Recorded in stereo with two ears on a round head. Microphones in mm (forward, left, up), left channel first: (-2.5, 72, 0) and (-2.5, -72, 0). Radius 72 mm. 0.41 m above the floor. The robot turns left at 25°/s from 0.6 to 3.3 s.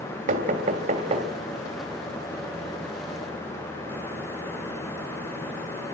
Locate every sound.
0.3 s knocking: 50° right (ahead or behind), 2 m; by 1.3 s 40° right (ahead or behind), 2 m